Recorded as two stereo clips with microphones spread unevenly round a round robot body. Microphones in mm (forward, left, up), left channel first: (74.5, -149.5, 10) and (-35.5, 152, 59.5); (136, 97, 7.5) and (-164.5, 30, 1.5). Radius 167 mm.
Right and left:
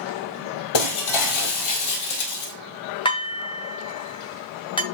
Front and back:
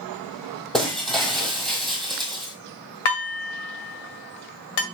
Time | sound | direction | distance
0.7 | breaking glass | 75° right | 1.1 m
3.0 | dishes clattering | 5° left | 1.9 m